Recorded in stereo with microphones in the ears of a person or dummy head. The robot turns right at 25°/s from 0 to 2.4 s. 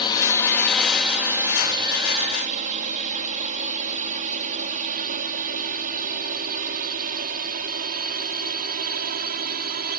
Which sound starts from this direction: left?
A drone, at 0.0 s.